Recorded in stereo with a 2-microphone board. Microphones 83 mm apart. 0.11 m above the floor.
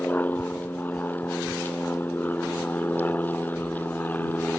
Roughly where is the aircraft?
Left.